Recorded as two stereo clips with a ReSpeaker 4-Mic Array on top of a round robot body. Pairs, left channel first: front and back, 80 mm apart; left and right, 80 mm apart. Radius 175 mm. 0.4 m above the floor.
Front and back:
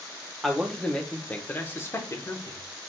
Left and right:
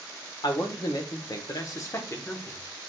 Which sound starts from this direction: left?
A man speaking, at 0.4 s.